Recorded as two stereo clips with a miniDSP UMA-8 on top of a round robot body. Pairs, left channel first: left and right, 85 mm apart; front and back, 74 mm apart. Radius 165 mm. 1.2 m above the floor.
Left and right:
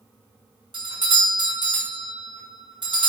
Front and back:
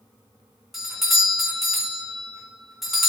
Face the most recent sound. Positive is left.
turn(degrees=-90)